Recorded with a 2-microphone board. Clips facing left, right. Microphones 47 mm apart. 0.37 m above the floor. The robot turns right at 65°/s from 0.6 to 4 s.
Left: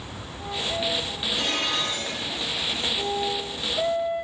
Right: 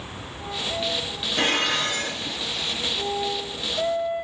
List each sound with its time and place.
1.4 s dishes clattering: 115° right, 4 m; by 2.4 s 50° right, 4 m